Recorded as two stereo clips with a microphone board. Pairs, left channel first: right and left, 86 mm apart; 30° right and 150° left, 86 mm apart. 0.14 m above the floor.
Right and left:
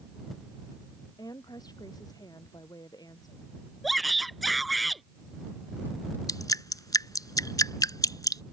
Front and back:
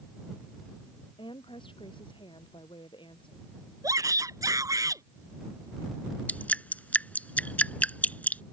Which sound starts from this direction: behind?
A shout, at 3.8 s.